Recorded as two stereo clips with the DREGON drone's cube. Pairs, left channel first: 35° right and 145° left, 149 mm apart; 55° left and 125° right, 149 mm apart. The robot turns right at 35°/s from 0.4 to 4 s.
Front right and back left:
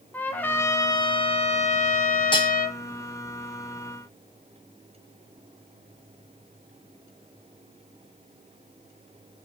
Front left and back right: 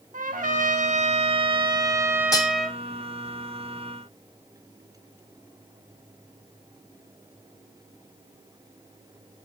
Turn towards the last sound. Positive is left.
turn(degrees=60)